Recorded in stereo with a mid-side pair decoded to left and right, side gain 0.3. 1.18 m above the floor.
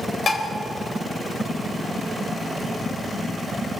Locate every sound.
0.3 s dishes clattering: 55° left, 4 m